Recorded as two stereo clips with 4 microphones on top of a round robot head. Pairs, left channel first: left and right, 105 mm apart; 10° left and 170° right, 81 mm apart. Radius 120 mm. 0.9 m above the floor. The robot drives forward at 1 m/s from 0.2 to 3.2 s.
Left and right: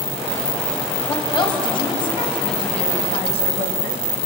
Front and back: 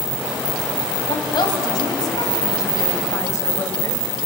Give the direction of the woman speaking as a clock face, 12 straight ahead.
11 o'clock.